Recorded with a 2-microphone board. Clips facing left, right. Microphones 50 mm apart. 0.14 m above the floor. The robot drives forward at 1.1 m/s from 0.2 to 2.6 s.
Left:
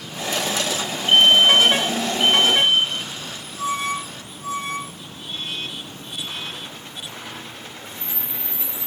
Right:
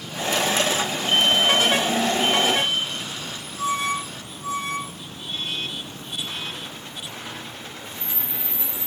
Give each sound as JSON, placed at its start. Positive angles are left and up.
{"t": 1.1, "sound": "a fire alarm", "side_deg": 50}